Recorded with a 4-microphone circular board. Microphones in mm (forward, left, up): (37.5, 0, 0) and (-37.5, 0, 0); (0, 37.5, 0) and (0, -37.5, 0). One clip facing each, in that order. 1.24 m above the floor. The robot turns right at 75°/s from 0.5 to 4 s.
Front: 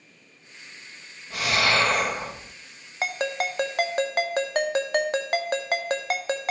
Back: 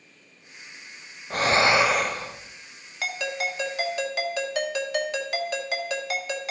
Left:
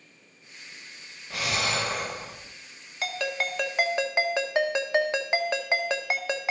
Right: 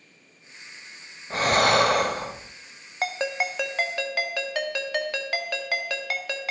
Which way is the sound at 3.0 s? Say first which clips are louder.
Front 2 dB, right 3 dB; 50° right.